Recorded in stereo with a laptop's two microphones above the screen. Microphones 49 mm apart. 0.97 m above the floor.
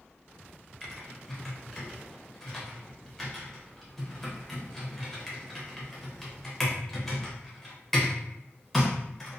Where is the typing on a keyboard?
5° left (ahead or behind), 0.7 m.